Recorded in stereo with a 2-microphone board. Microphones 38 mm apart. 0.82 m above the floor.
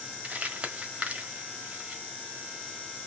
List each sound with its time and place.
0.2 s crumpling: 40° right (ahead or behind), 1.3 m